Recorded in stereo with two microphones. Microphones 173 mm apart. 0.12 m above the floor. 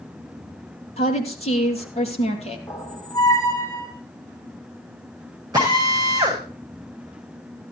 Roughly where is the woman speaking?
Left.